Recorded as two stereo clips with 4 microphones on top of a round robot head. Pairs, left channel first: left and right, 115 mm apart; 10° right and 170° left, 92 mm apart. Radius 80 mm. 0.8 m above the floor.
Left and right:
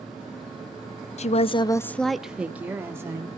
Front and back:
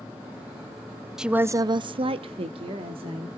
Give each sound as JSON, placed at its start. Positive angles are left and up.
{"t": 1.2, "sound": "a woman speaking", "azimuth_deg": 85, "distance_m": 0.7}